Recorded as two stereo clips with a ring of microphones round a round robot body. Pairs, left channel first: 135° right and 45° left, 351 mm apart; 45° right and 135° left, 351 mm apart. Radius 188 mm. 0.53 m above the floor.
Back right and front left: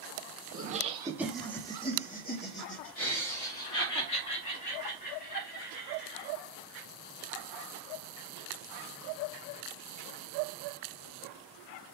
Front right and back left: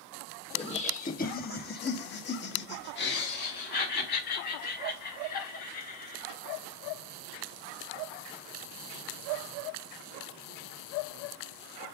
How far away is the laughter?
About 1.1 m.